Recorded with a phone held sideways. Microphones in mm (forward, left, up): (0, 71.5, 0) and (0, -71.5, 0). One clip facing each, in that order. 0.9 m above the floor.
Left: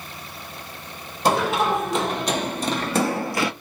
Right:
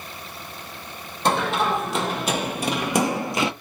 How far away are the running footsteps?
About 1.5 m.